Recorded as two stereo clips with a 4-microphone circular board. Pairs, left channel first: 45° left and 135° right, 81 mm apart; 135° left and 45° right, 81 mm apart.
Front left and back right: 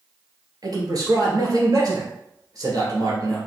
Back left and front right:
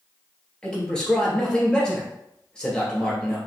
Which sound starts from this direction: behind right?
A man speaking, at 0.6 s.